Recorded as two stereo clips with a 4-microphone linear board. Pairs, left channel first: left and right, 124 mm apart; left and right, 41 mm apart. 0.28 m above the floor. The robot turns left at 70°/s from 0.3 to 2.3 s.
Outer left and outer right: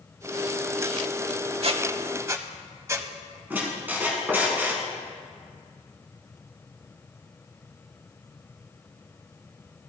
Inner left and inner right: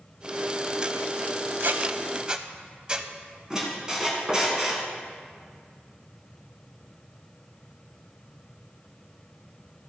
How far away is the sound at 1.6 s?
About 0.5 m.